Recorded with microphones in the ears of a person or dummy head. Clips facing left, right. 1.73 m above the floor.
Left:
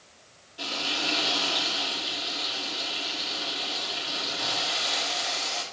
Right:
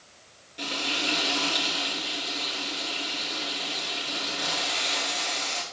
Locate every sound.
0.6 s frying: 30° right (ahead or behind), 3 m